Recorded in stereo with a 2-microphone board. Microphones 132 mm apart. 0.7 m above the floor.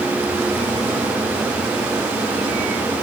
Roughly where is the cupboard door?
No cupboard door in this recording.